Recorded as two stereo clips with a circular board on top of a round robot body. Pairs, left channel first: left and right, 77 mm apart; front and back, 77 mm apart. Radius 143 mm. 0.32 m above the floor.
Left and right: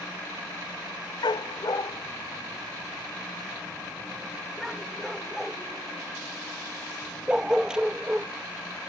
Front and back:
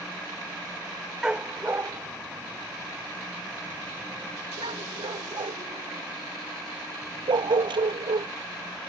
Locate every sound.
1.2 s a dog barking: 100° left; by 8.3 s 170° right